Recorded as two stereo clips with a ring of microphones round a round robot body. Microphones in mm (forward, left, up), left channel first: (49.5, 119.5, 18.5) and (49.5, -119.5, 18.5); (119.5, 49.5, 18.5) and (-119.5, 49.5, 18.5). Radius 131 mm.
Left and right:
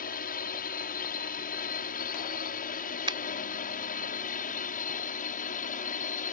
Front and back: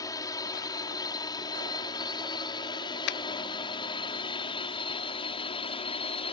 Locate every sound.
0.0 s a drone: 65° left; by 6.3 s 55° left
3.1 s a finger snap: 20° right